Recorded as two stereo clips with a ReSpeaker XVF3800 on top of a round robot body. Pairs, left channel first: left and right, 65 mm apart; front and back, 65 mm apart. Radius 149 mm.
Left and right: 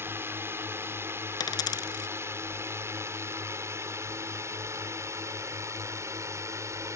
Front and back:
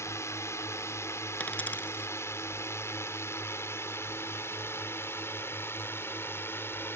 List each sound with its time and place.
0.0 s a drone: 40° right; by 7.0 s 50° right
1.4 s a dropped coin: 70° left